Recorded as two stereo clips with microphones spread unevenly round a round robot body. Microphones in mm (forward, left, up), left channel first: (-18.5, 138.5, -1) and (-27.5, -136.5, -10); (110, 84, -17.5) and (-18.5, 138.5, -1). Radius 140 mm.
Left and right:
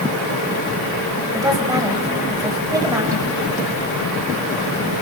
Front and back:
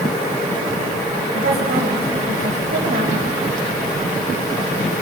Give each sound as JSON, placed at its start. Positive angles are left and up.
{"t": 1.3, "sound": "a woman speaking", "azimuth_deg": -170, "distance_m": 4.0}